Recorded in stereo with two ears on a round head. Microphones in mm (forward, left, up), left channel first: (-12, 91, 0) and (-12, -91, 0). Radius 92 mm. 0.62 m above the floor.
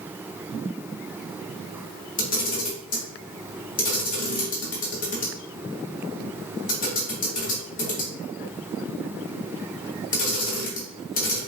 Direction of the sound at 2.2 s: 40° left (ahead or behind).